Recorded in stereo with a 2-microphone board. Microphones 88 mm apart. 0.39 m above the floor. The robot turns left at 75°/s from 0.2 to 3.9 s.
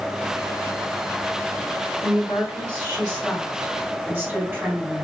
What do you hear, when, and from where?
2.0 s a woman speaking: 90° left, 1.5 m; by 5.0 s 50° right, 1.5 m